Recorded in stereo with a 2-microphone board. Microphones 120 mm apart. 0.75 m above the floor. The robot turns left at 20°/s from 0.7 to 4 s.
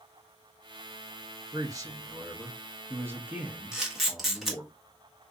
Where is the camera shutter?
5° right (ahead or behind), 1.3 m; by 4.6 s centre (ahead or behind), 1.3 m.